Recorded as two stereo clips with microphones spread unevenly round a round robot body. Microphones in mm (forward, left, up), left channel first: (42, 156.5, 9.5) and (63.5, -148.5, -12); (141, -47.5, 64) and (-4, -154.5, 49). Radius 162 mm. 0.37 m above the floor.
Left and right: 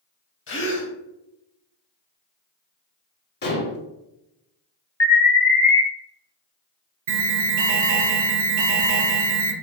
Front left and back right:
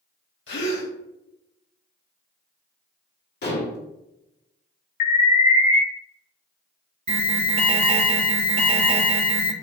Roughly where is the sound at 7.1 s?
Right.